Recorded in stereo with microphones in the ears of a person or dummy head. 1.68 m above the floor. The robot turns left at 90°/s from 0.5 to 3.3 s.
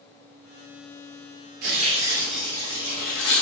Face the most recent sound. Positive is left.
turn(degrees=95)